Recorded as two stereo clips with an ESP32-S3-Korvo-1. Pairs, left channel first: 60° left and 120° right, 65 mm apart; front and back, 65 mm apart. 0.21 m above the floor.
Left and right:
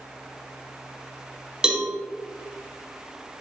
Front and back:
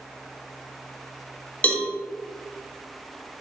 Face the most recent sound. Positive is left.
turn(degrees=-50)